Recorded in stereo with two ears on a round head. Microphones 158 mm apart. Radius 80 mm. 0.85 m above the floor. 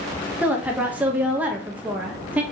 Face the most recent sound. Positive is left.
turn(degrees=-10)  # may be behind; listen again after turning